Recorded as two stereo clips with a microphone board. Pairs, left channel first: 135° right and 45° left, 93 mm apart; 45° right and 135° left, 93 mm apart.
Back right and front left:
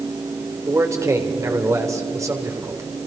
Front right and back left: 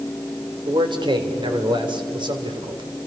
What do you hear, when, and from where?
0.7 s a man speaking: 105° left, 3 m